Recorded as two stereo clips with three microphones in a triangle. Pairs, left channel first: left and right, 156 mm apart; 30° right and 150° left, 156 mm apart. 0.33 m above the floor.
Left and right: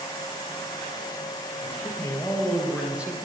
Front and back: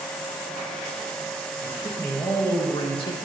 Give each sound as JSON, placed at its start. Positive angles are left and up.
{"t": 1.6, "sound": "a man speaking", "azimuth_deg": 40, "distance_m": 2.0}